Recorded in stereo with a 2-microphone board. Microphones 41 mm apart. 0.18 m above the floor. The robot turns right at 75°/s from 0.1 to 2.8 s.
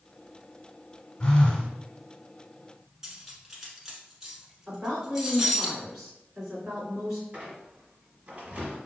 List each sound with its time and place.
1.2 s a phone buzzing: 150° left, 0.9 m; by 1.7 s 175° right, 0.9 m
3.0 s cutlery clinking: 10° right (ahead or behind), 1.0 m
4.7 s a woman speaking: 10° right (ahead or behind), 1.7 m
7.3 s a squeak: 30° right (ahead or behind), 1.2 m